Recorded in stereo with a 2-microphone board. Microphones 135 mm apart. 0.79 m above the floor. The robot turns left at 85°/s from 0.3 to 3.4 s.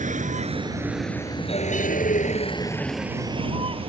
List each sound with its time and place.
0.0 s a vehicle: 70° right (ahead or behind); by 3.9 s 45° right (ahead or behind)